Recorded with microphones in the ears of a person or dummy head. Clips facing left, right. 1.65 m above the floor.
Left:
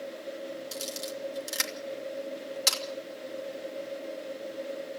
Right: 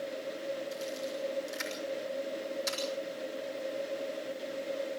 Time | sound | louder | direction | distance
0.7 | a camera shutter | right 1 dB | 85° left | 3 m